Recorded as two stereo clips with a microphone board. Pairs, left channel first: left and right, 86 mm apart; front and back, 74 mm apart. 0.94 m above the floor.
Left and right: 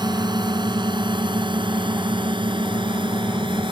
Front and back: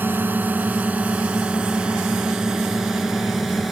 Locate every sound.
0.0 s a drone: 115° right; by 3.7 s 90° right